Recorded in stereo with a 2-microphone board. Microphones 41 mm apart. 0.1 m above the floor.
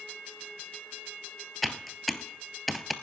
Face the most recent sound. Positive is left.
turn(degrees=0)  # may be behind; listen again after turning